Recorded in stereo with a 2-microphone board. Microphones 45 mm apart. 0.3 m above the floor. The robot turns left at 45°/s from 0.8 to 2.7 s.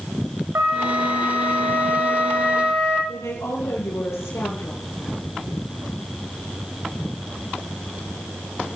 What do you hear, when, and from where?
0.6 s a flute: 75° right, 7.5 m; by 3.0 s 160° right, 7.5 m
3.1 s a woman speaking: 80° left, 8 m